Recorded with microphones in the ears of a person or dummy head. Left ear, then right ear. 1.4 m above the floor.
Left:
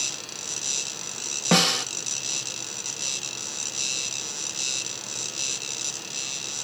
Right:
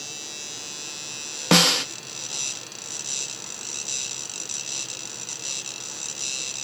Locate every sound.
1.5 s a snare drum: 75° right (ahead or behind), 1.0 m